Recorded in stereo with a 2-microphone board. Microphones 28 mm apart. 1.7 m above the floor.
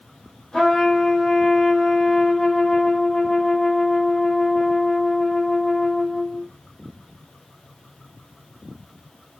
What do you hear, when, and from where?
0.5 s a trumpet: 20° left (ahead or behind), 1.5 m